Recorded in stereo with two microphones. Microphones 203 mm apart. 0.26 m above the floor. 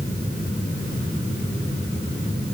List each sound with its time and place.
Only background noise.